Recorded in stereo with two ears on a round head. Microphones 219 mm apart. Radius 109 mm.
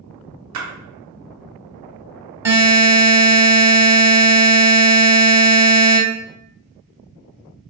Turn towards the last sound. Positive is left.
turn(degrees=-15)  # may be behind; listen again after turning